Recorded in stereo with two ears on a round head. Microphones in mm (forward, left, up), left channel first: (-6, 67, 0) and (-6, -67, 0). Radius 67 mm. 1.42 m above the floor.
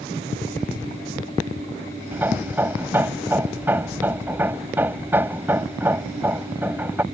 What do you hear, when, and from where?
2.1 s hammering: 15° right (ahead or behind)